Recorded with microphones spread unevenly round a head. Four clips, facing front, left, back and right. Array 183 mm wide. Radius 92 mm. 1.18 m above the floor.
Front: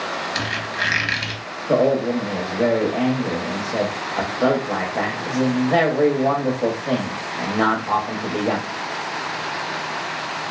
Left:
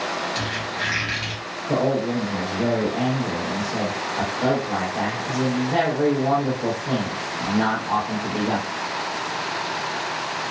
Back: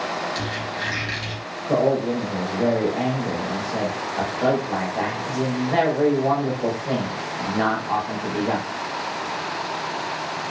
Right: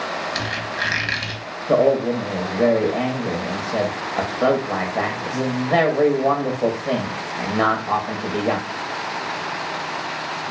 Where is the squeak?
35° right, 0.9 m.